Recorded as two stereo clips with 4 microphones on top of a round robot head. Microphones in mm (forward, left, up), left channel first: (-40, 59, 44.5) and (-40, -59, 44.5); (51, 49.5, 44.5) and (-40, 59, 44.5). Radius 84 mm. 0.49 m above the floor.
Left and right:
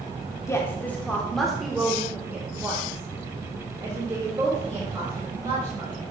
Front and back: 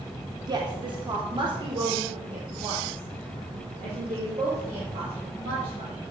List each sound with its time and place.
0.5 s a woman speaking: 150° left, 1.2 m; by 6.0 s 145° right, 3 m